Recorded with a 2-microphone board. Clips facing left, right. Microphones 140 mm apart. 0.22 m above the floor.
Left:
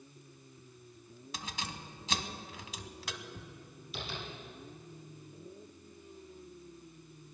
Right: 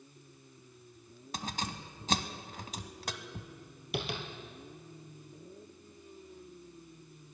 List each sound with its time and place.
1.3 s keys jangling: 45° right (ahead or behind), 0.9 m
3.9 s tapping: 65° right (ahead or behind), 2 m